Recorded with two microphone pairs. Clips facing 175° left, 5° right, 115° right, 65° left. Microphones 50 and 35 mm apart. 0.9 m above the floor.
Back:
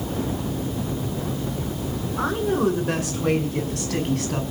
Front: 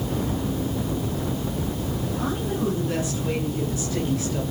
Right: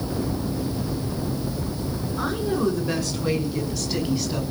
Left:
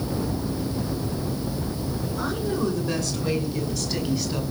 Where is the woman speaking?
170° left, 8.5 m; by 4.4 s 155° left, 5.5 m.